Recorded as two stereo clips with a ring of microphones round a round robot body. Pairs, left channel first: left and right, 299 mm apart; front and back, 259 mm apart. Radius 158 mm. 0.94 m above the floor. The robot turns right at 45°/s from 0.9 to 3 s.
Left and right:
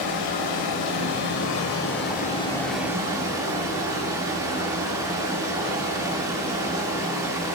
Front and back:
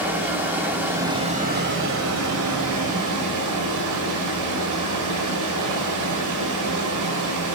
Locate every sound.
0.0 s running water: 95° left, 2 m; by 7.6 s 170° right, 2 m